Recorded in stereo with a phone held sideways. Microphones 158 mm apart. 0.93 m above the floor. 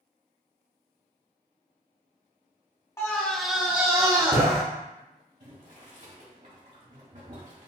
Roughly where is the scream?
Centre.